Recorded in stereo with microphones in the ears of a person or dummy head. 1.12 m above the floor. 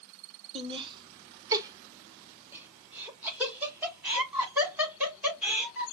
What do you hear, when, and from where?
0.6 s laughter: 30° right (ahead or behind), 1.0 m; by 5.8 s 5° right (ahead or behind), 3.5 m